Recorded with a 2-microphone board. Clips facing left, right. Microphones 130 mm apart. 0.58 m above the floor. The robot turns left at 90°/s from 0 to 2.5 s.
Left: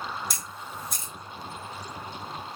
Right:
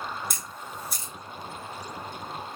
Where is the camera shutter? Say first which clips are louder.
Even; 55° right (ahead or behind), 2.5 m; by 1.1 s 15° left (ahead or behind), 2.5 m.